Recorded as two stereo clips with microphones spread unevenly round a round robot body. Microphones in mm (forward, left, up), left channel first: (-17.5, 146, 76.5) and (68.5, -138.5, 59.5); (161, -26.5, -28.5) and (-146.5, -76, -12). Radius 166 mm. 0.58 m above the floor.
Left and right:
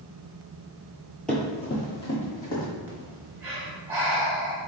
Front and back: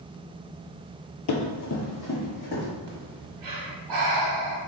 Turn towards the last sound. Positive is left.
turn(degrees=-155)